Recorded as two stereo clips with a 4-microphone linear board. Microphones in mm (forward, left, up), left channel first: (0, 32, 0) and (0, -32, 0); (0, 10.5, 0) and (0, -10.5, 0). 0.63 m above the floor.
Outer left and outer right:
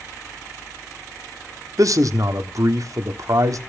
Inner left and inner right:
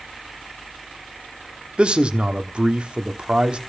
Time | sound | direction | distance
1.8 | a man speaking | 60° right (ahead or behind) | 1.0 m